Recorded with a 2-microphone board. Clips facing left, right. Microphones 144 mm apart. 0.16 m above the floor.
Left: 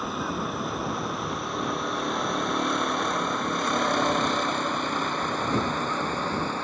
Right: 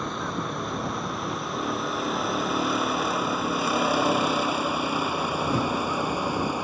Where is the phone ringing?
I don't hear a phone ringing.